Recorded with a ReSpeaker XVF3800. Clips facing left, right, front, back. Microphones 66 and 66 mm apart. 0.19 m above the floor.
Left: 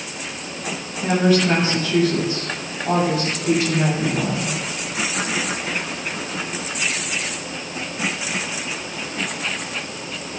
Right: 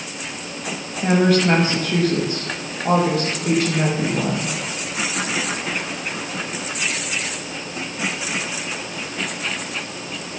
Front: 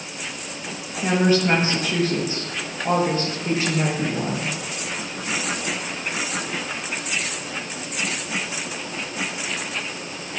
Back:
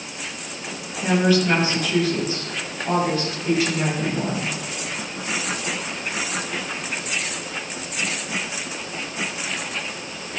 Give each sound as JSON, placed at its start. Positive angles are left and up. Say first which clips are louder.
{"t": 1.0, "sound": "a woman speaking", "louder": "right 1 dB, even", "azimuth_deg": -60, "distance_m": 6.0}